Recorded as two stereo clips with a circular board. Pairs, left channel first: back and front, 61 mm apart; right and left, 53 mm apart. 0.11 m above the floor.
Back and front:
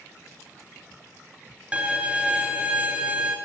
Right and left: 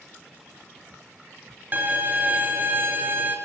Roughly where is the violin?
Ahead left.